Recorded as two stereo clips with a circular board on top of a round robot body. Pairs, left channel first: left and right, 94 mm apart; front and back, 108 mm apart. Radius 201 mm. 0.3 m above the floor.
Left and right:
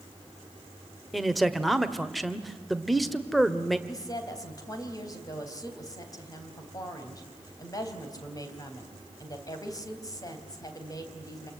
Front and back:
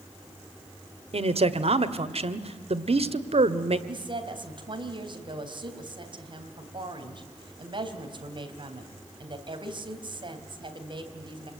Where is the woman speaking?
140° left, 4 m.